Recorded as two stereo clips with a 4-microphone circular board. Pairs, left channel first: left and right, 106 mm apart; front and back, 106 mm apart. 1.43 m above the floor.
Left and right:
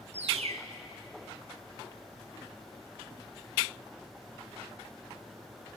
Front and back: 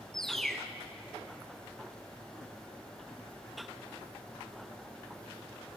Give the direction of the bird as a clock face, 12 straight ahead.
3 o'clock.